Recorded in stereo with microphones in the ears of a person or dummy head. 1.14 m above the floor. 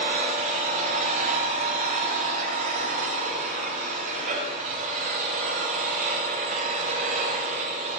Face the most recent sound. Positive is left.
turn(degrees=-40)  # may be behind; listen again after turning